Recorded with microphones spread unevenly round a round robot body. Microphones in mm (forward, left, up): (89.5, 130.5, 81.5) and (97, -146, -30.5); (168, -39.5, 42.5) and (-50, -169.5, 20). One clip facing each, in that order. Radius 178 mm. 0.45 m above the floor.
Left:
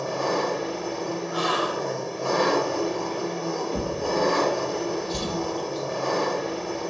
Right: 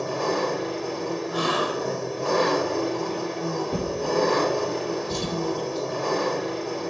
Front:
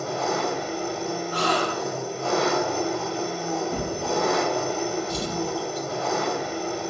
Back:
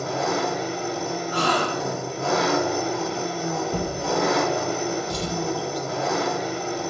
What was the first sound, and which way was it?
An engine running, 170° right.